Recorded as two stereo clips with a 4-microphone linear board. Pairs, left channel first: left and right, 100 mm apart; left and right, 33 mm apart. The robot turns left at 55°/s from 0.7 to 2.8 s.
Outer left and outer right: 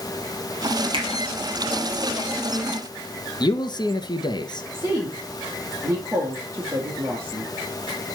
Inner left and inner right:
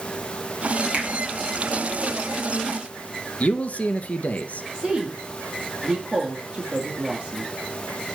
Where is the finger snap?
60° right (ahead or behind), 4 m; by 1.1 s 65° right (ahead or behind), 4 m.